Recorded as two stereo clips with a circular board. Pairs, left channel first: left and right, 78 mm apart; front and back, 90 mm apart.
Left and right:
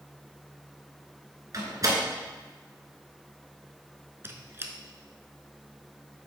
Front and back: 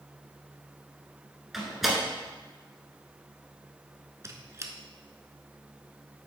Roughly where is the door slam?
Right.